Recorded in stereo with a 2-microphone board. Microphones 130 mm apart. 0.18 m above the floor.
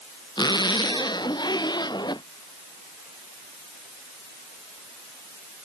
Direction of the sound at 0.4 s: 35° left (ahead or behind).